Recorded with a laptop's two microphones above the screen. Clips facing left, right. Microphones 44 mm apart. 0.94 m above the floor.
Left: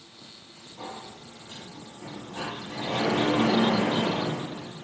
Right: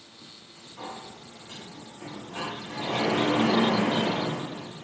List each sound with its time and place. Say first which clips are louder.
0.8 s a sliding door: even; 50° right (ahead or behind), 0.8 m